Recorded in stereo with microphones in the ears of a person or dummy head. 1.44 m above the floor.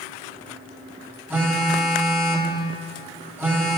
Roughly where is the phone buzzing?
Centre.